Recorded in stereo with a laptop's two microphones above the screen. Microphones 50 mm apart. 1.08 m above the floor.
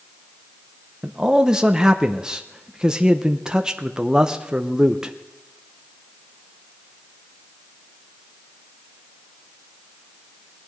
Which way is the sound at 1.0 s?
15° right (ahead or behind).